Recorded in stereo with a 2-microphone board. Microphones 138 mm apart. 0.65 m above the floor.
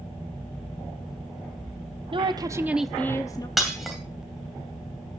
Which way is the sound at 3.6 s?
Centre (ahead or behind).